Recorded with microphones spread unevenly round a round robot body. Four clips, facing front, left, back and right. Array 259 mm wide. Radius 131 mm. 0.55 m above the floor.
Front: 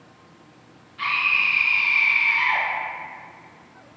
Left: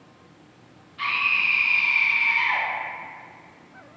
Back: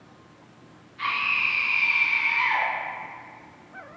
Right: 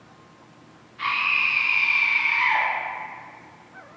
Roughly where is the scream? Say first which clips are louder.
Right 1 dB, front 2 dB; left.